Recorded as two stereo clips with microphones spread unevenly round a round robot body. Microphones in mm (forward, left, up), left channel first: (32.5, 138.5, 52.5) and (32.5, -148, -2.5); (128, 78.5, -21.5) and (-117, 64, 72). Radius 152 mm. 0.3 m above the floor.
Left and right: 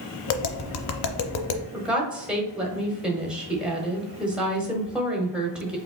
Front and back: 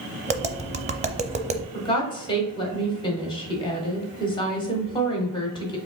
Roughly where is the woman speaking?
Ahead.